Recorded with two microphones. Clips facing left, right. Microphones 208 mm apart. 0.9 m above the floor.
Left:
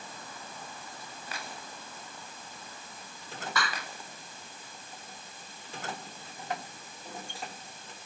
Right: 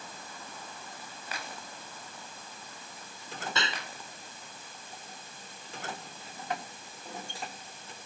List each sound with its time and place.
3.5 s a clap: 25° right (ahead or behind)